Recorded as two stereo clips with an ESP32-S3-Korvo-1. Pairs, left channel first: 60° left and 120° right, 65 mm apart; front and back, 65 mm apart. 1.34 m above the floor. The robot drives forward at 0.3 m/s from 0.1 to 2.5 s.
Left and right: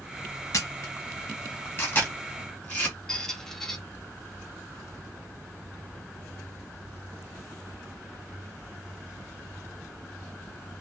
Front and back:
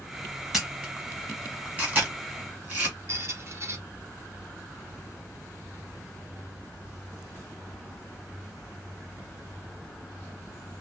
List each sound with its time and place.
0.5 s a camera shutter: 95° left, 1.0 m; by 3.0 s 125° left, 1.2 m
3.1 s a squeak: 140° left, 0.5 m